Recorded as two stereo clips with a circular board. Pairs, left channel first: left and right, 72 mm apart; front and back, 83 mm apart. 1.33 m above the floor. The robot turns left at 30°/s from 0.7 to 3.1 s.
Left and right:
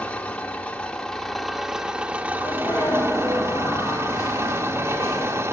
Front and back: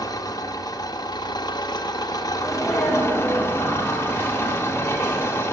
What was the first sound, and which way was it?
An engine running, 20° left.